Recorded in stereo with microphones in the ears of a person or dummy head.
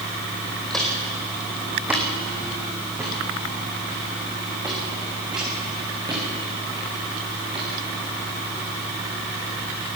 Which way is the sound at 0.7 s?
Centre (ahead or behind).